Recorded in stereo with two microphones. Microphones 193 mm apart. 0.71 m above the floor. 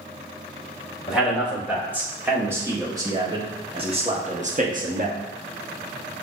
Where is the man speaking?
5° right (ahead or behind), 2.5 m; by 5.2 s 45° right (ahead or behind), 1.2 m.